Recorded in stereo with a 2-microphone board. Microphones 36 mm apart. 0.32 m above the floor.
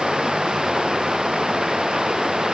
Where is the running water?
10° right (ahead or behind).